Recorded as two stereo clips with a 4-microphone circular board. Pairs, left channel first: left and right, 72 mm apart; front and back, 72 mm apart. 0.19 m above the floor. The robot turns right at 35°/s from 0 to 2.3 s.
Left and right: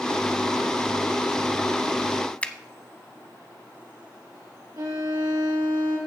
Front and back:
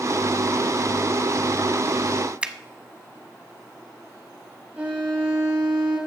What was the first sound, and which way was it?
A finger snap, 130° left.